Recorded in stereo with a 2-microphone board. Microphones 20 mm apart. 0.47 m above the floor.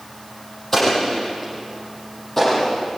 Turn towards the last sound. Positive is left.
turn(degrees=15)  # may be behind; listen again after turning